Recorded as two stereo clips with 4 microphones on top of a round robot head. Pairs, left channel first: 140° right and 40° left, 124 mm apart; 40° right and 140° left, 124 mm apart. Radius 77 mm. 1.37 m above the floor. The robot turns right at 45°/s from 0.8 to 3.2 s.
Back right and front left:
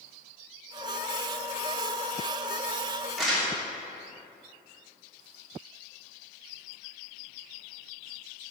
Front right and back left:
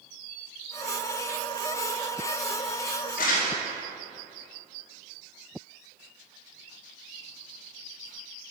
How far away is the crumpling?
About 3 m.